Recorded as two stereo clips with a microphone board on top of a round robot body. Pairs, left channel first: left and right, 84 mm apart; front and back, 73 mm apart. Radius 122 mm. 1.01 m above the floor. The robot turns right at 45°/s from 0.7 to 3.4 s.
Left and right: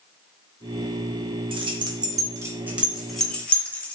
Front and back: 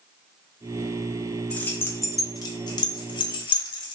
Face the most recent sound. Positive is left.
turn(degrees=10)